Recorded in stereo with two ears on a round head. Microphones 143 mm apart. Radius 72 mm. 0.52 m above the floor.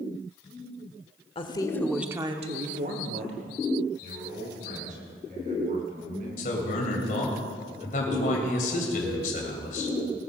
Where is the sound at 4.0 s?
50° right (ahead or behind), 5 m.